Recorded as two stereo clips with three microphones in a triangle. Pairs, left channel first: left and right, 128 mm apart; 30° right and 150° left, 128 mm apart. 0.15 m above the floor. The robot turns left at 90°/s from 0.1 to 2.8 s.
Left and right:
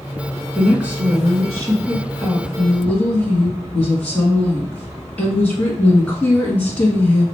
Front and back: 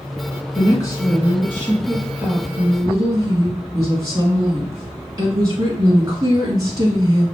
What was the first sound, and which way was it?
A woman speaking, straight ahead.